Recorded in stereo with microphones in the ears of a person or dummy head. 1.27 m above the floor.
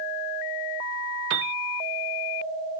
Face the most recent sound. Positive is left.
turn(degrees=-65)  # may be behind; listen again after turning